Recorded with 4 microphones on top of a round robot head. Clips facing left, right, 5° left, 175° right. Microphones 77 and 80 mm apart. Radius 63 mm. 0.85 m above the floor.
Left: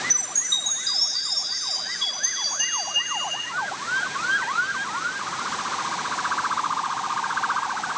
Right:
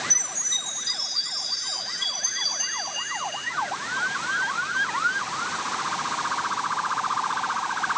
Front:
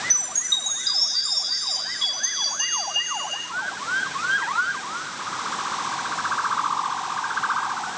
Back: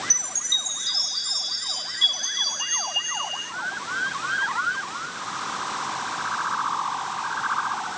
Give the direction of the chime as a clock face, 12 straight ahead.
8 o'clock.